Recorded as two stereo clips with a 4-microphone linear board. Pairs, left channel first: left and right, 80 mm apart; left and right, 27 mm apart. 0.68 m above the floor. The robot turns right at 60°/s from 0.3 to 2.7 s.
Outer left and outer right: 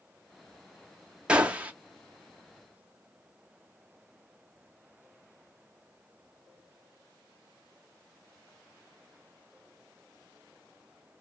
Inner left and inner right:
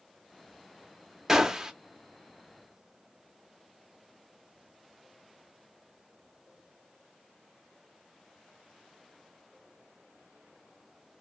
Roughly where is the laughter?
No laughter in this recording.